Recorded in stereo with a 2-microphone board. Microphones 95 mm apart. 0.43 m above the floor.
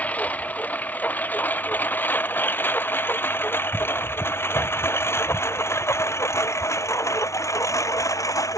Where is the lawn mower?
15° left (ahead or behind); by 8.6 s 35° left (ahead or behind).